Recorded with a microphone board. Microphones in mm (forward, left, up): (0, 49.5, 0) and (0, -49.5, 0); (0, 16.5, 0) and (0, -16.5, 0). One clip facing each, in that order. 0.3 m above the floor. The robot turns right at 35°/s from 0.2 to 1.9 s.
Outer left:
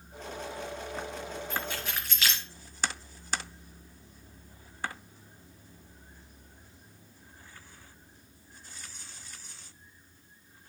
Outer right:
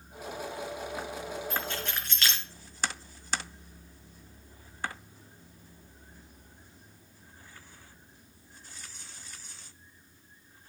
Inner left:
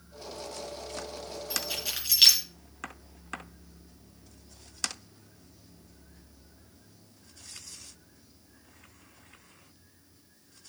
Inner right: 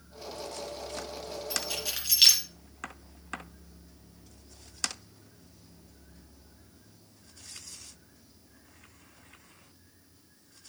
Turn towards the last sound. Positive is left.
turn(degrees=5)  # may be behind; listen again after turning